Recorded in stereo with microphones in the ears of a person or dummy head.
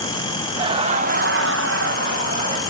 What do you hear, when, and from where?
0.6 s laughter: 30° right (ahead or behind), 1.6 m; by 2.6 s 40° right (ahead or behind), 2.0 m